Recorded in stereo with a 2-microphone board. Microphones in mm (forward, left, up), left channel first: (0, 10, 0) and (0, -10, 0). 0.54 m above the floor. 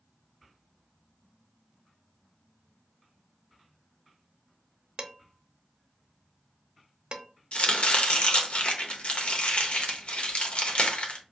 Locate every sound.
5.0 s dishes clattering: 45° right (ahead or behind), 0.6 m
7.5 s chopping: 65° left (ahead or behind), 0.7 m